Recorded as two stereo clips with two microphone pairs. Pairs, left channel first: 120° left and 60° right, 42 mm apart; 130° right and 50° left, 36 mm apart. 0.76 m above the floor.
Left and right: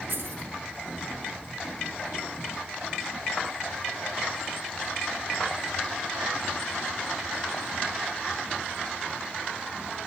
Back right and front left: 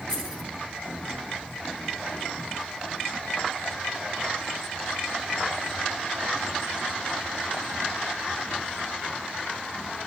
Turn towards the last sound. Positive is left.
turn(degrees=-65)